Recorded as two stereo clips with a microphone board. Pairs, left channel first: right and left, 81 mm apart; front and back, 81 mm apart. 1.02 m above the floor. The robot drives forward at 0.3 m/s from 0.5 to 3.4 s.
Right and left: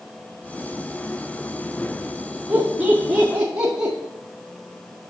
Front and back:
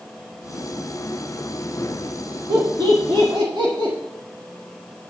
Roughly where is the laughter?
Behind.